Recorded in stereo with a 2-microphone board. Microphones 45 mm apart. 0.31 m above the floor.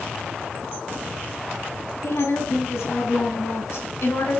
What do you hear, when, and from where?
2.0 s a woman speaking: 80° left, 7.5 m; by 4.4 s 75° left (ahead or behind), 5.5 m